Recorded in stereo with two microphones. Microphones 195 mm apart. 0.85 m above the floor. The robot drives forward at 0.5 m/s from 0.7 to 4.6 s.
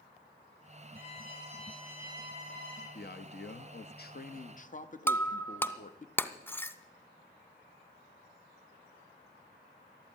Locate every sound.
0.9 s a violin: 70° left (ahead or behind), 8.5 m; by 2.9 s 80° left, 8 m
3.0 s a man speaking: 55° left (ahead or behind), 0.7 m; by 6.1 s 40° left (ahead or behind), 0.9 m
5.1 s breaking glass: 10° left (ahead or behind), 0.7 m